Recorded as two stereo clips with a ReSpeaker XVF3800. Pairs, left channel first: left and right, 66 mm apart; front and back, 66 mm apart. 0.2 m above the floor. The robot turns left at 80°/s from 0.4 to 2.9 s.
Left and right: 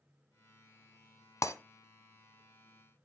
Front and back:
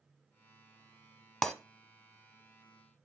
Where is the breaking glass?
75° left, 1.0 m; by 1.5 s 65° left, 1.0 m.